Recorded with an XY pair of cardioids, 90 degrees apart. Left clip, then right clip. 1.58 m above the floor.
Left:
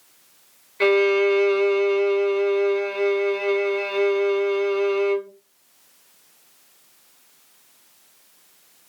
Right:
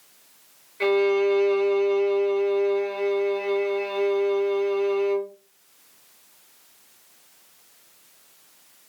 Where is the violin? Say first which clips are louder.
Left 3 dB; 60° left, 1.2 m.